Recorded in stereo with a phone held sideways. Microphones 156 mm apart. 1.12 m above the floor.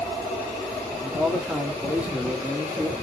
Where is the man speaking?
10° right (ahead or behind), 2.5 m.